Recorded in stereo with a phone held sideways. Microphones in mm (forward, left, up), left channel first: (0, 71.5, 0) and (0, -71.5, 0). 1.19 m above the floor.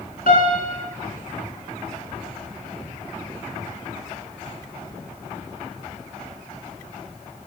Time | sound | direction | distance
0.3 | a piano | 80° left | 4 m